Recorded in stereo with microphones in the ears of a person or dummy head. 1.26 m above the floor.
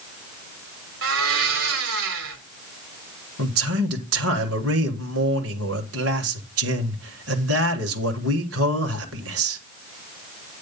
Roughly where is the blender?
Right.